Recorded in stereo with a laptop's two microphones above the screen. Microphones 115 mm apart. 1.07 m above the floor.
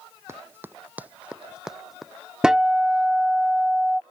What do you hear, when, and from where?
0.3 s running footsteps: 25° right (ahead or behind); by 2.1 s centre (ahead or behind)
2.4 s a guitar: 5° right (ahead or behind)